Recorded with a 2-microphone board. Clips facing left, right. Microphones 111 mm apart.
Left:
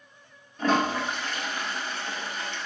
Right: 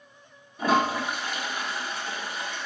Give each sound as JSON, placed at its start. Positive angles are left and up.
{"t": 0.6, "sound": "a toilet flushing", "side_deg": -10, "distance_m": 0.8}